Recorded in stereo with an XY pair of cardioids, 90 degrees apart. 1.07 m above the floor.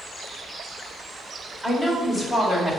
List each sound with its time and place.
1.6 s a woman speaking: 15° left, 1.8 m; by 2.8 s 40° left, 1.9 m